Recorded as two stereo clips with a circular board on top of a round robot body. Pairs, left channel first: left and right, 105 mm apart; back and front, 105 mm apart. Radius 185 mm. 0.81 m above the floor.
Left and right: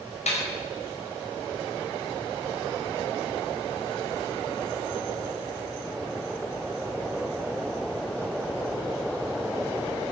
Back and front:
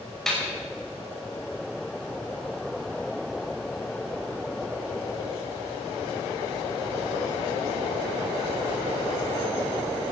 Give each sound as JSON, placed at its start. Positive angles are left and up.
{"t": 0.3, "sound": "a snare drum", "azimuth_deg": 95, "distance_m": 5.5}